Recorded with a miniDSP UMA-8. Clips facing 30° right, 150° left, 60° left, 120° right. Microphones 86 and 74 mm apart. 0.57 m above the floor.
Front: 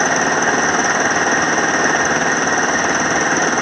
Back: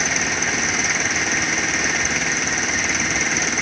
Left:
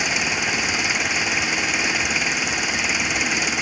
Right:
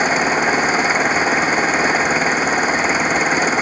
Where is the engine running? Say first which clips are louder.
Front 9 dB, right 8 dB; 70° right.